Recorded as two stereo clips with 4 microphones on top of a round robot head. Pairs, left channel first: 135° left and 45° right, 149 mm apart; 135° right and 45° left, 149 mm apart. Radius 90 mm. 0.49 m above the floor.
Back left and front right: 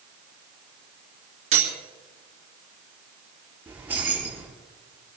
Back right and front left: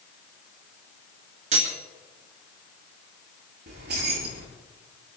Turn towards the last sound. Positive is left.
turn(degrees=35)